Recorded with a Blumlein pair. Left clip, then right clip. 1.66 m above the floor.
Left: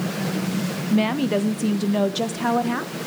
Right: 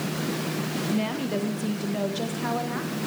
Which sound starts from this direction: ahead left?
A woman speaking, at 0.9 s.